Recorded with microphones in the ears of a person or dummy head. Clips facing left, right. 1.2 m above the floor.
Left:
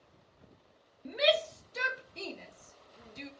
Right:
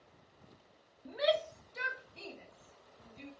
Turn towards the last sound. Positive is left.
turn(degrees=70)  # may be behind; listen again after turning